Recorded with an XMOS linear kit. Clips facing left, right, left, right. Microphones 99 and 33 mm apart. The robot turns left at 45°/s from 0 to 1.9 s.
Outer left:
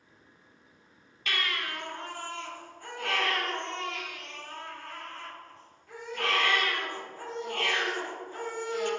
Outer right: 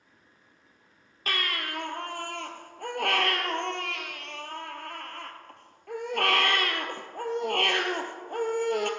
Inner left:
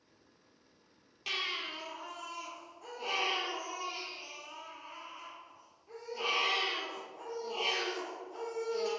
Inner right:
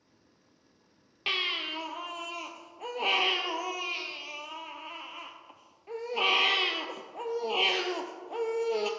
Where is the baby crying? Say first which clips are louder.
Outer right 1 dB, inner right 6 dB; 40° right (ahead or behind), 1.2 m; by 8.9 s 65° right (ahead or behind), 1.2 m.